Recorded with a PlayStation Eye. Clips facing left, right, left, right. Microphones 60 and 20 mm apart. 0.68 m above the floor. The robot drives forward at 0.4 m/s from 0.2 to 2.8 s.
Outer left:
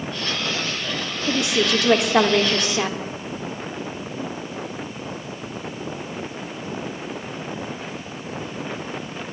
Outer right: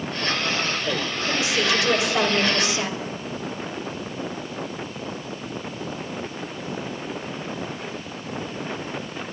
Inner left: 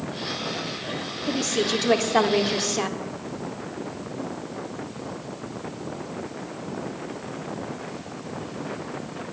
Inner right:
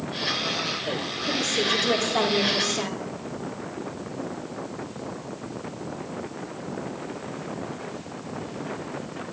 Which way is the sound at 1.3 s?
60° left (ahead or behind).